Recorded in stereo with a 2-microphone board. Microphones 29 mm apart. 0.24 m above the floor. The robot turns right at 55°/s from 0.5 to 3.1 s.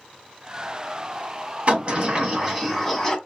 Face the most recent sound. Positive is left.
turn(degrees=10)